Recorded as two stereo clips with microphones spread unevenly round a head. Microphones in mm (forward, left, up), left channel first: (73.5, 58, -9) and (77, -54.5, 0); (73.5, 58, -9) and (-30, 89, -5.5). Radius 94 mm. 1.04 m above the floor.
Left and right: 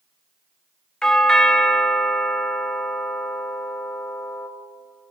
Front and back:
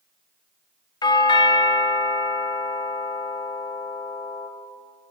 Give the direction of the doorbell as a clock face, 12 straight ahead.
12 o'clock.